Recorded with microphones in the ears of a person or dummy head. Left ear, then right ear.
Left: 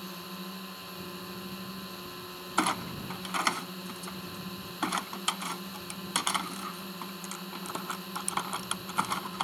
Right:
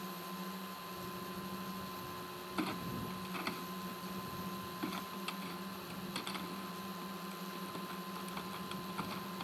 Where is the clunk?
45° left (ahead or behind).